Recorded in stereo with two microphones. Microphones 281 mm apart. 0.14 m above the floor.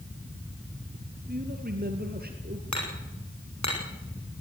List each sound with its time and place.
1.3 s a man speaking: 35° right (ahead or behind), 3 m
2.7 s hammering: 75° left (ahead or behind), 6.5 m